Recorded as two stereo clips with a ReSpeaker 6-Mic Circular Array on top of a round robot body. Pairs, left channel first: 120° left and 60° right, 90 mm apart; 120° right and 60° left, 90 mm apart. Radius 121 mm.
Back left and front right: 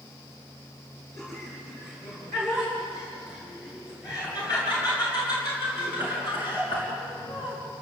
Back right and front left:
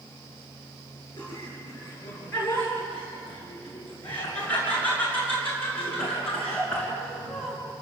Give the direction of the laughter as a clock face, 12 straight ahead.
6 o'clock.